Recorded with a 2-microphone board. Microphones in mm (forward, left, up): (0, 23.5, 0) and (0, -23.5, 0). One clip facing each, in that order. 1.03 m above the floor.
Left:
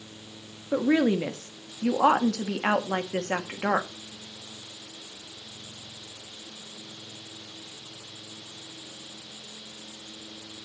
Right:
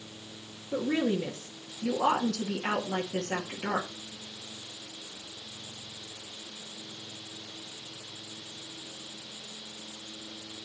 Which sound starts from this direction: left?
A woman speaking, at 0.7 s.